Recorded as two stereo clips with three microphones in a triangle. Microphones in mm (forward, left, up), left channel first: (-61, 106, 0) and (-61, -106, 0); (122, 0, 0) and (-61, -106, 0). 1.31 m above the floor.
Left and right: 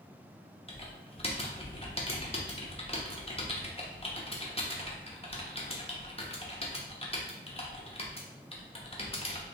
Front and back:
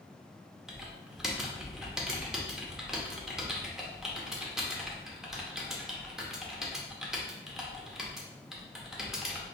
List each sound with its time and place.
0.7 s typing on a keyboard: 125° left, 0.7 m